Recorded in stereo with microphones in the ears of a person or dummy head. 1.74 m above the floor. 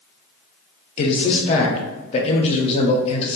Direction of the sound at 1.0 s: 35° left (ahead or behind).